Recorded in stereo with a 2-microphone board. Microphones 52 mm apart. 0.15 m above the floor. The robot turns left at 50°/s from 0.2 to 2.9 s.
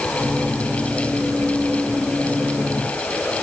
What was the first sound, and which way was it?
Only background noise.